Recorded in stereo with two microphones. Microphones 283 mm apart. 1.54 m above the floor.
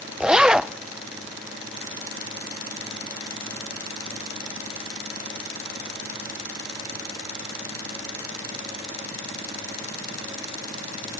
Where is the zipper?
5° right (ahead or behind), 0.5 m.